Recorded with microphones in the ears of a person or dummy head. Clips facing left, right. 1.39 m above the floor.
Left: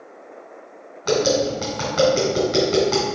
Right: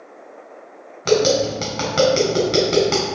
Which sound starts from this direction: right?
Tapping, at 1.1 s.